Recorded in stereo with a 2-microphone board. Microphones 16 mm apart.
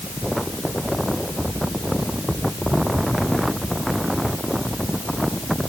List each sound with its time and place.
Only background noise.